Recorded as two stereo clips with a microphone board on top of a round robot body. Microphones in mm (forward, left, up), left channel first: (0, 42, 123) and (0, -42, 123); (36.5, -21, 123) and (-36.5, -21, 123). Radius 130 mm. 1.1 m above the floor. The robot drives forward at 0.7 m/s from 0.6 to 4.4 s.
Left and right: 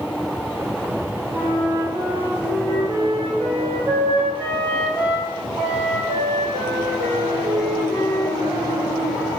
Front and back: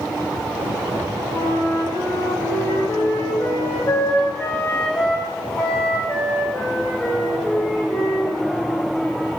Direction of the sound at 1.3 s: 40° right.